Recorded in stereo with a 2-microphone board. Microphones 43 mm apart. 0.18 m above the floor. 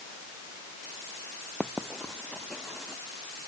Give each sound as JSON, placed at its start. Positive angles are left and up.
{"t": 1.6, "sound": "writing", "side_deg": 5}